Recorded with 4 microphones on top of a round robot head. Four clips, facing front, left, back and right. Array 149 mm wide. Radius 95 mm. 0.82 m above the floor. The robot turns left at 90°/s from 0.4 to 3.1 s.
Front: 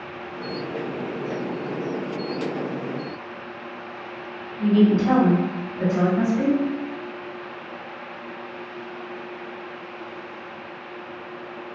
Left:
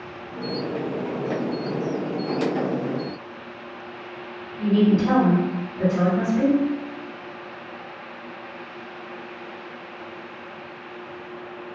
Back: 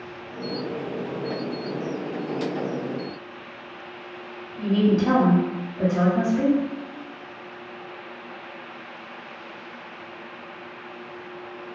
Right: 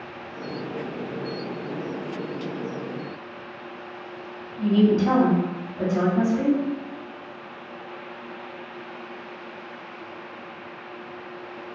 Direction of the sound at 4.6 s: 125° right.